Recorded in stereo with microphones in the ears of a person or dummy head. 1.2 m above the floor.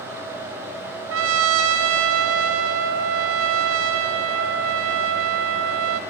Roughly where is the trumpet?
Right.